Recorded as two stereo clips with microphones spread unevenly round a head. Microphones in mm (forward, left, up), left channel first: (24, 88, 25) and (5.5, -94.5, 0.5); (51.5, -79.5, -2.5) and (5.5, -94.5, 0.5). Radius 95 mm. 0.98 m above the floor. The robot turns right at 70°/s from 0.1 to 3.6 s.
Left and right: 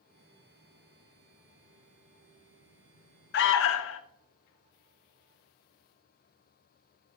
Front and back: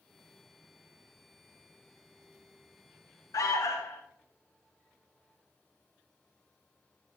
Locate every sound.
3.3 s an alarm: 50° left, 0.6 m; by 4.0 s 70° left, 0.6 m